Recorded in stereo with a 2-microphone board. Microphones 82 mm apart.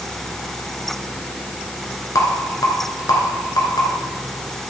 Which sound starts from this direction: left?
A rattle, at 2.1 s.